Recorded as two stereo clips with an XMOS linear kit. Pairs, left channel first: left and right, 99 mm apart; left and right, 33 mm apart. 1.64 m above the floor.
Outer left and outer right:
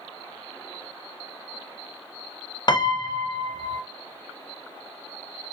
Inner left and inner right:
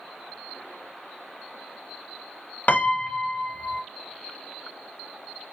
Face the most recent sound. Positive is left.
turn(degrees=45)  # may be behind; listen again after turning